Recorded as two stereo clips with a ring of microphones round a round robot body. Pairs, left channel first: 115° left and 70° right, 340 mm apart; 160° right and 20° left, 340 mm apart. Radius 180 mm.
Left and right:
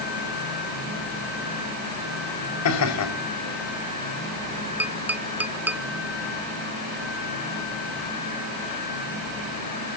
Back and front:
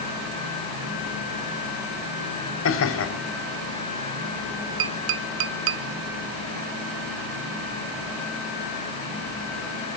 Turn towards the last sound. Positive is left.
turn(degrees=15)